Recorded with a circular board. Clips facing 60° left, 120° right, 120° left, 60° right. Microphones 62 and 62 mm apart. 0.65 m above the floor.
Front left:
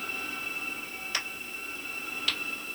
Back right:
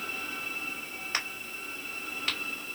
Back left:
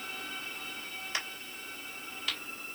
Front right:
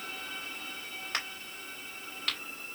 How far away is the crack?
About 2.5 m.